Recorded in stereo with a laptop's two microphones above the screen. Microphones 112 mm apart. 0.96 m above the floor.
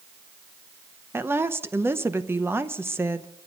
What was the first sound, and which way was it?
A woman speaking, 20° right (ahead or behind).